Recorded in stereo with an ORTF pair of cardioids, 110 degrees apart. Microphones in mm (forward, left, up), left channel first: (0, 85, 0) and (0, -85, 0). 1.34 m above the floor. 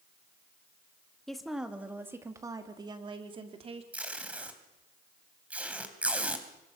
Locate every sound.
1.3 s a woman speaking: straight ahead, 2.5 m; by 3.8 s 40° right, 3.5 m
3.9 s tape being pulled: 10° right, 3 m